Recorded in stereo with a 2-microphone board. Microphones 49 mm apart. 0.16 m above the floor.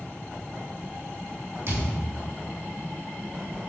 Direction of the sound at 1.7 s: 60° right (ahead or behind).